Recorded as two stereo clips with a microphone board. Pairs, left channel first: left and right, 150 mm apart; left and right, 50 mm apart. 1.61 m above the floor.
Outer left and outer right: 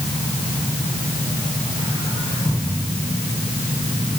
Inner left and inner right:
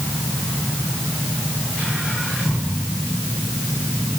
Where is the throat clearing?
I don't hear throat clearing.